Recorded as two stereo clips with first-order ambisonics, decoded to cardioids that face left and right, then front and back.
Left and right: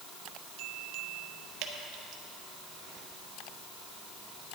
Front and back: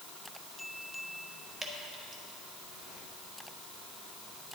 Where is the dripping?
105° right, 1.2 m.